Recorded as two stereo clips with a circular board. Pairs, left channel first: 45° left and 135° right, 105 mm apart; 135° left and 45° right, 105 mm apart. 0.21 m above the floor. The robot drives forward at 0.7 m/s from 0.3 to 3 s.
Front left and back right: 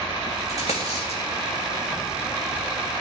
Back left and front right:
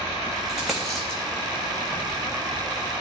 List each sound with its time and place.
0.5 s a dropped coin: 40° left, 1.7 m; by 1.2 s 55° left, 1.4 m